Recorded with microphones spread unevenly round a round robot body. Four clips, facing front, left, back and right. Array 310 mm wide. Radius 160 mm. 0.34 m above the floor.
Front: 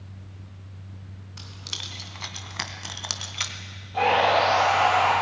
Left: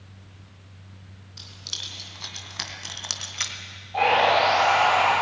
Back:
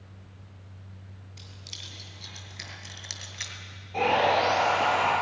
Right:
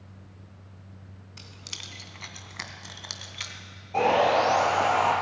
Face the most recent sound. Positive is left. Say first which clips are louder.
# left 2 dB, front 3 dB
turn(degrees=-115)